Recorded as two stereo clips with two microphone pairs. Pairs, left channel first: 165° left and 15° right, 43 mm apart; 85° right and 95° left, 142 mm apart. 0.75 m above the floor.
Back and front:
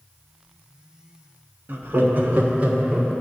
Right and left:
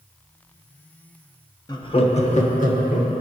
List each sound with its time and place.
1.7 s laughter: 30° right, 1.0 m; by 3.2 s 80° right, 1.6 m